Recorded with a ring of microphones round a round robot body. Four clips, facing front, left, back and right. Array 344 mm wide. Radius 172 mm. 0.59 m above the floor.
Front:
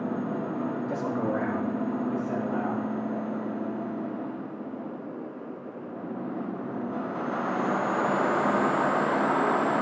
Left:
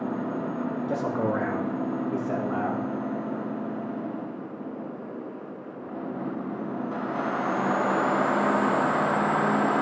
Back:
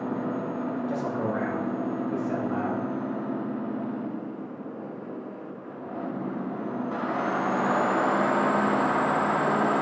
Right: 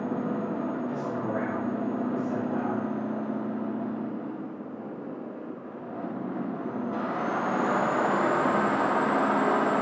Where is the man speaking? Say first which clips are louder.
Left 4 dB, front 1 dB; 80° left, 2 m; by 2.9 s 110° left, 3.5 m.